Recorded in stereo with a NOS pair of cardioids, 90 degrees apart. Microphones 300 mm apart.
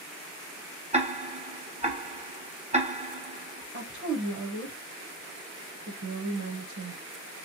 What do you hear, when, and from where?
0.9 s ticking: 25° right, 0.7 m
3.7 s a woman speaking: 45° right, 1.0 m